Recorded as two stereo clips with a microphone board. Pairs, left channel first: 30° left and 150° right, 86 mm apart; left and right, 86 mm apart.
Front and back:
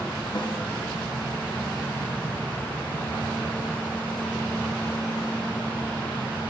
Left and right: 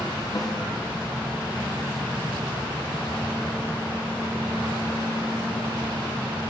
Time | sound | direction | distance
0.3 | a snare drum | 45° left | 0.8 m